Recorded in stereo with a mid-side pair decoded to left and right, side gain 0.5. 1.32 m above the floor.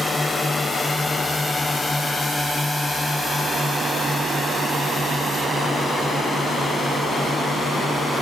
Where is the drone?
15° left; by 8.2 s 20° left.